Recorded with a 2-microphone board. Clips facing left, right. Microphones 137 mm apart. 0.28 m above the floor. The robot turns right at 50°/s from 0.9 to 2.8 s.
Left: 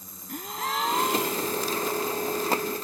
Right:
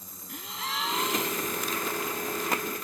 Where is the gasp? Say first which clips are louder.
Left 6 dB; 60° left; by 1.6 s 90° left.